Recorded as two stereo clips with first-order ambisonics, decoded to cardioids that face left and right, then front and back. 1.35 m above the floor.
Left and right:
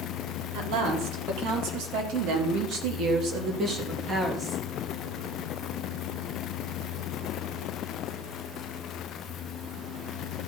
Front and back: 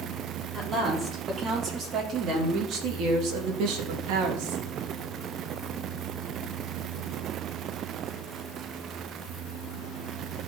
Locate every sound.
0.5 s a woman speaking: 105° right, 4.5 m; by 4.7 s 175° right, 2.5 m